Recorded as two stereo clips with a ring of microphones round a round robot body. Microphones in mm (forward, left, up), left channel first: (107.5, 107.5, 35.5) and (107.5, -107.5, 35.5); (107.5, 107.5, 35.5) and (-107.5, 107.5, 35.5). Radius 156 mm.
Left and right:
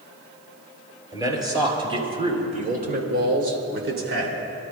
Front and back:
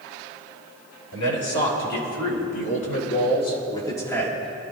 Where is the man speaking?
15° right, 5 m; by 4.7 s 100° right, 3 m.